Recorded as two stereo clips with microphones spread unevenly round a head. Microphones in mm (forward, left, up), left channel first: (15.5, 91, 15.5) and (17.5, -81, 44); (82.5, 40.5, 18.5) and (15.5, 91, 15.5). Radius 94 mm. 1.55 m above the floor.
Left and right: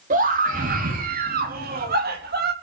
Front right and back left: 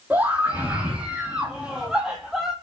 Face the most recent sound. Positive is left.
turn(degrees=-125)